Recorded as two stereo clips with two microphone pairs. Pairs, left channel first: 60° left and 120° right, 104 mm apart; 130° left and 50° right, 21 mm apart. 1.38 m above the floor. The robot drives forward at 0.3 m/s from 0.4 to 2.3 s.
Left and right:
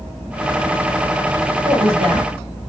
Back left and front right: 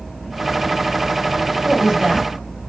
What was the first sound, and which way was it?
A woman speaking, 85° right.